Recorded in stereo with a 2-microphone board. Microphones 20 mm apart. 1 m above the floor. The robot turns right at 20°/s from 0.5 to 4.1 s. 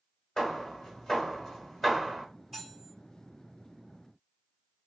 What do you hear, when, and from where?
0.4 s hammering: 40° left (ahead or behind), 2.0 m; by 2.2 s 5° left (ahead or behind), 2.0 m
2.5 s cutlery clinking: 10° left (ahead or behind), 2.5 m; by 2.9 s 5° left (ahead or behind), 2.5 m